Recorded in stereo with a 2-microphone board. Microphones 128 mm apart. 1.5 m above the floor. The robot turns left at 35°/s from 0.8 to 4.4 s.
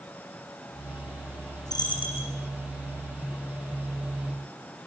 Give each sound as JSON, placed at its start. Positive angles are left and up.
{"t": 1.7, "sound": "a dropped coin", "side_deg": 30, "distance_m": 9.0}